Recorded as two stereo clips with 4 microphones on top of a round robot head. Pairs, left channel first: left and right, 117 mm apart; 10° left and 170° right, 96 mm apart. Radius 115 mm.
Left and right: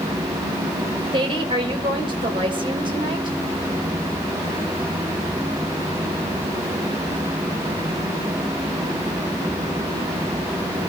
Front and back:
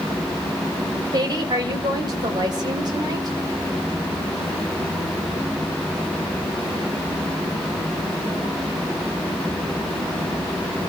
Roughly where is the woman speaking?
Behind right.